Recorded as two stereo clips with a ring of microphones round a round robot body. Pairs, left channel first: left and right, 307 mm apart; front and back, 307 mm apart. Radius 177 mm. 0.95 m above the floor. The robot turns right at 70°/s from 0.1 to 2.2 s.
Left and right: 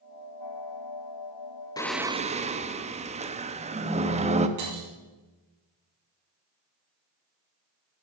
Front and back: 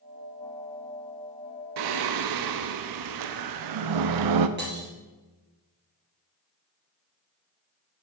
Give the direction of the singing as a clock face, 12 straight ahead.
6 o'clock.